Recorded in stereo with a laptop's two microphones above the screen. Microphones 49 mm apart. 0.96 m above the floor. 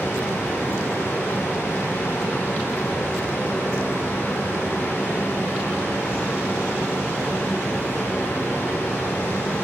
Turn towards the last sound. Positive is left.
turn(degrees=65)  # may be behind; listen again after turning